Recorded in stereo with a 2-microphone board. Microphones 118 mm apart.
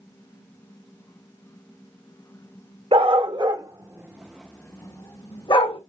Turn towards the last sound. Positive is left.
turn(degrees=50)  # may be behind; listen again after turning